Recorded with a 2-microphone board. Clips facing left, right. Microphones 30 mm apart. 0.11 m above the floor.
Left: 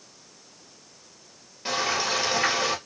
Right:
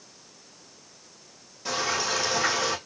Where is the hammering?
I don't hear hammering.